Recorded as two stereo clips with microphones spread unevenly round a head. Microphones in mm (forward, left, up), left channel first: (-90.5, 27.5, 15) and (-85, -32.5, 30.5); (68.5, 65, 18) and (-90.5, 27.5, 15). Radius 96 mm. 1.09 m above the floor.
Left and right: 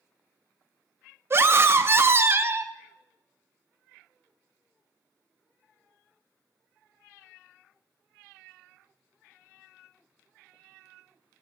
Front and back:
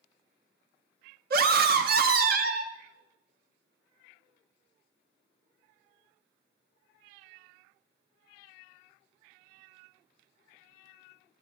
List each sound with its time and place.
1.3 s a scream: 140° right, 0.8 m